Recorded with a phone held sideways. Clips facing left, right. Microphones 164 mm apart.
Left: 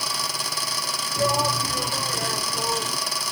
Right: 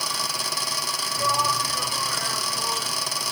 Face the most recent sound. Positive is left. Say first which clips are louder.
# left 4 dB
turn(degrees=35)  # may be behind; listen again after turning